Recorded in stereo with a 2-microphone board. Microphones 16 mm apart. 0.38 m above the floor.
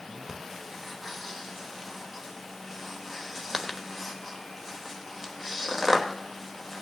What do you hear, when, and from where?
0.3 s breathing: 20° right (ahead or behind), 1.0 m